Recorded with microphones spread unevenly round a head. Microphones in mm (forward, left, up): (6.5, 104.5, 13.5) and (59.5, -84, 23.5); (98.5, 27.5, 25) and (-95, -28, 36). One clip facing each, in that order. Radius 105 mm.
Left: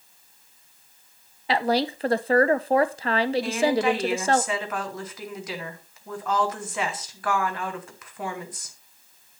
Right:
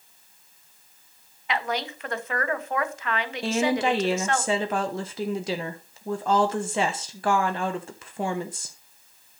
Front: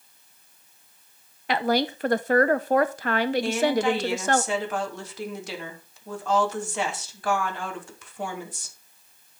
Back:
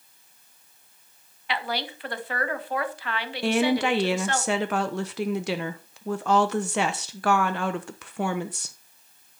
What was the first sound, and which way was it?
A woman speaking, 55° left.